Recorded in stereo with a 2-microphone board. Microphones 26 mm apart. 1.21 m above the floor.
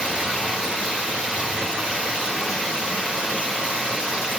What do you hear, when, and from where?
0.0 s running water: 55° right (ahead or behind), 2.5 m